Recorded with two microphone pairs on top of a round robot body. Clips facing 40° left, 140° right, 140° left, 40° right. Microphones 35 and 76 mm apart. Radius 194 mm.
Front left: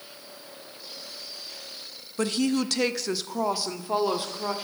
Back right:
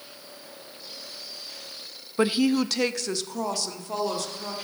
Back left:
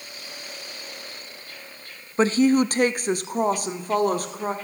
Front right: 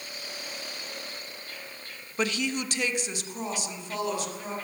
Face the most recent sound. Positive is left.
turn(degrees=100)